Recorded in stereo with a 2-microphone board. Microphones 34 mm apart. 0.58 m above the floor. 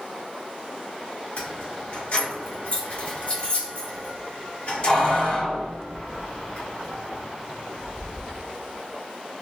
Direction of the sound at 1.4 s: 40° left (ahead or behind).